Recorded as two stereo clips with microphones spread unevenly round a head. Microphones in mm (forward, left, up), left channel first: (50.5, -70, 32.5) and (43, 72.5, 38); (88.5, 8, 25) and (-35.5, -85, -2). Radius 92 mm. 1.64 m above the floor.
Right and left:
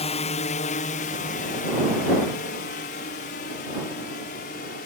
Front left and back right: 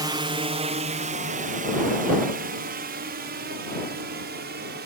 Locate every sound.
0.0 s a drone: 100° right; by 4.9 s 130° right